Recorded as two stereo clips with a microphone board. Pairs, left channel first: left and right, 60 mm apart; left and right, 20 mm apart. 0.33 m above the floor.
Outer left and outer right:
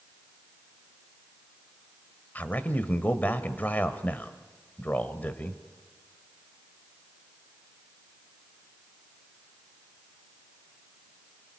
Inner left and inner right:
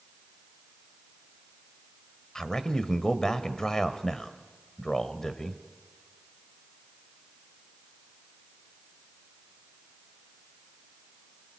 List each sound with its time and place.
2.4 s a man speaking: 30° left (ahead or behind), 1.3 m